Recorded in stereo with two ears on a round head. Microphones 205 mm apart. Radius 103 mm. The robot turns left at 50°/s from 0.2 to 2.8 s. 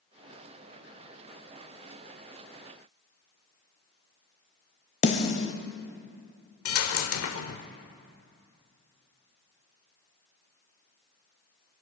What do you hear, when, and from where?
5.0 s a snare drum: 30° left (ahead or behind), 1.1 m
6.7 s a dropped coin: 70° left (ahead or behind), 1.0 m